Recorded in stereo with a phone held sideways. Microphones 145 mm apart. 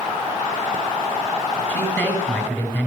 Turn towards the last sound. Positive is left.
turn(degrees=10)  # may be behind; listen again after turning